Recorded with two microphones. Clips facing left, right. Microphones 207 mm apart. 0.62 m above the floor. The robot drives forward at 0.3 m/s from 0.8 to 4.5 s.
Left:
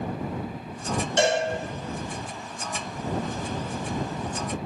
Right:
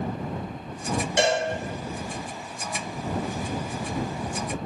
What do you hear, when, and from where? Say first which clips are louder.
1.2 s a cowbell: left 1 dB; 15° right (ahead or behind), 0.9 m